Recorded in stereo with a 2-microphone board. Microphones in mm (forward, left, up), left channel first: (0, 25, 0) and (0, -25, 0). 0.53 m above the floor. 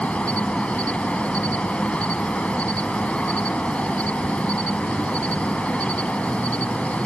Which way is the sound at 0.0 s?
25° left (ahead or behind).